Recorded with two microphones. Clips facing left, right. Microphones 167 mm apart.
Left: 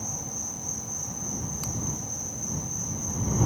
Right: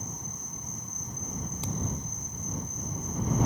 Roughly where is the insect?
Left.